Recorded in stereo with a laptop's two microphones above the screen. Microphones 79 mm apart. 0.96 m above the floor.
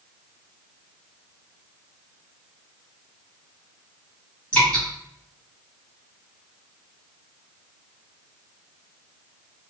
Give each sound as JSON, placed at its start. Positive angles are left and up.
{"t": 4.5, "sound": "dripping", "side_deg": 15, "distance_m": 1.7}